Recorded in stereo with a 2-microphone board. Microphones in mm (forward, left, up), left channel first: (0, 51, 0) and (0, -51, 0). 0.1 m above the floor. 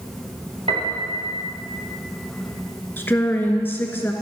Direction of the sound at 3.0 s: 20° left (ahead or behind).